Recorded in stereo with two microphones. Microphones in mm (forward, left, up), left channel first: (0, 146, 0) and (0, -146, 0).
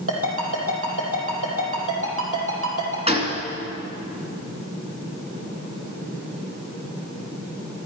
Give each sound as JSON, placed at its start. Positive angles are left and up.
{"t": 0.1, "sound": "a ringtone", "side_deg": -50, "distance_m": 4.0}
{"t": 3.1, "sound": "a gunshot", "side_deg": -20, "distance_m": 2.5}